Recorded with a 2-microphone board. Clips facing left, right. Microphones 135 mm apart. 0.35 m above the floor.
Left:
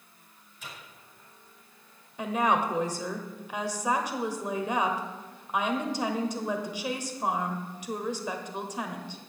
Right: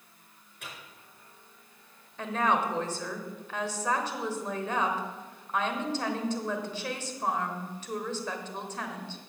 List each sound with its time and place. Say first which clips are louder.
0.6 s a microwave: even; 60° right (ahead or behind), 4.5 m
2.2 s a woman speaking: left 2 dB; 15° left (ahead or behind), 1.2 m